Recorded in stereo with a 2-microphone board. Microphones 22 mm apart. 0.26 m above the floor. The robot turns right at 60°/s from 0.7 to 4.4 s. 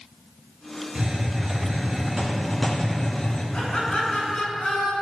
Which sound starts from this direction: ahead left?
Laughter, at 3.5 s.